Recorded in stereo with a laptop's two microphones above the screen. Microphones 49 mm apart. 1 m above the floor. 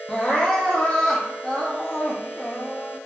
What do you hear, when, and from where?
0.1 s crying: 10° left (ahead or behind), 0.7 m